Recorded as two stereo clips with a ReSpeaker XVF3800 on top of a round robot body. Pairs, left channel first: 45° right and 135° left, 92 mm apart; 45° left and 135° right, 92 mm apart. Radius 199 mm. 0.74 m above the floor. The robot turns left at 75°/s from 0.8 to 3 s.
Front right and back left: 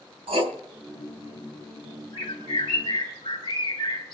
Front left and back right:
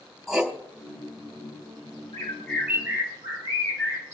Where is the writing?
135° left, 3 m.